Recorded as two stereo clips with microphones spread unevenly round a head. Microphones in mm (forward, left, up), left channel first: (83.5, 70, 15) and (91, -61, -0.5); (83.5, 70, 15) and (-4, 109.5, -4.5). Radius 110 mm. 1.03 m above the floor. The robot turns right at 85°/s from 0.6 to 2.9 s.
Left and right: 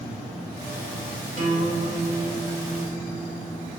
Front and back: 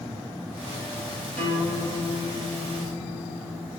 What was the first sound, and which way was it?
A guitar, 70° right.